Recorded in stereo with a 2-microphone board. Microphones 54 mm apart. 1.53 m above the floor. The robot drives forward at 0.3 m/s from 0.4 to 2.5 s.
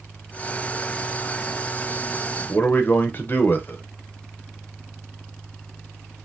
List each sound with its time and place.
2.5 s a man speaking: 35° left (ahead or behind), 0.8 m